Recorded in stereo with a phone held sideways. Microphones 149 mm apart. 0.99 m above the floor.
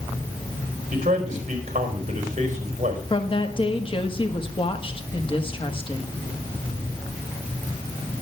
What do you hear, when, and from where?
0.9 s a man speaking: 50° right (ahead or behind), 4 m
3.1 s a woman speaking: 35° left (ahead or behind), 1.5 m